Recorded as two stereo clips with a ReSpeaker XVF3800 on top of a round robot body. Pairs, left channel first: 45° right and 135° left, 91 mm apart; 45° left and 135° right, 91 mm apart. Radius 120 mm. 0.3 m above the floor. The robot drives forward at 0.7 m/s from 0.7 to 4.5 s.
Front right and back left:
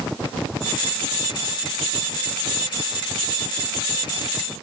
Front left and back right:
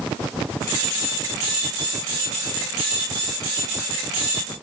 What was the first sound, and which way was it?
Only background noise.